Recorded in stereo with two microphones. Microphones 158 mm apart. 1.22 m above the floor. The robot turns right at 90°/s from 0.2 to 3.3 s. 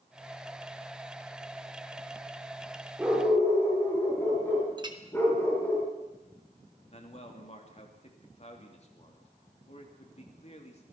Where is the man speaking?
45° left (ahead or behind), 3 m.